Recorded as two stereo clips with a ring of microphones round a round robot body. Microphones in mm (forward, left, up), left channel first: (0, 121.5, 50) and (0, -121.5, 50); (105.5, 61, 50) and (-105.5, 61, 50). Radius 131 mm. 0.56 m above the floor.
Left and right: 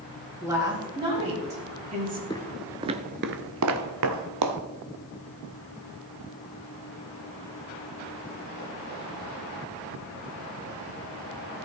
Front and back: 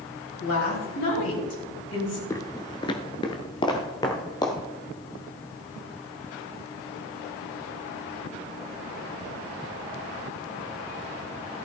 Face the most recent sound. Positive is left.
turn(degrees=-75)